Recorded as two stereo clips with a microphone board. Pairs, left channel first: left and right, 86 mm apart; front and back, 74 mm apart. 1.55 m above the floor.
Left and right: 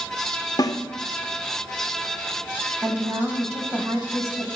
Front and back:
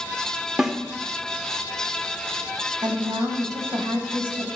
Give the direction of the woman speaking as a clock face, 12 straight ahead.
5 o'clock.